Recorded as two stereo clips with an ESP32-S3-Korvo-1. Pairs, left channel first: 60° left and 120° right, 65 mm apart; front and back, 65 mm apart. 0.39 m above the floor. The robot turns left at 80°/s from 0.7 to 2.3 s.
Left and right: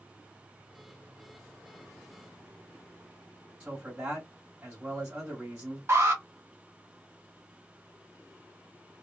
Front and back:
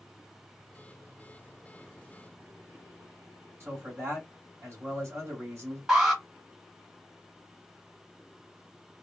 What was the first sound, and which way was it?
A man speaking, straight behind.